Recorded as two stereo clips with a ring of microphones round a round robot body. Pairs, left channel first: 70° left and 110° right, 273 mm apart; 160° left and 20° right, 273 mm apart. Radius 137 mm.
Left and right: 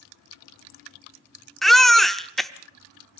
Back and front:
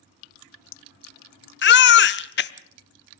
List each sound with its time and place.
1.6 s a baby crying: 155° left, 0.6 m